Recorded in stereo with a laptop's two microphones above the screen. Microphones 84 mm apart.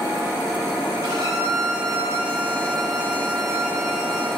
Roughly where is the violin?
Right.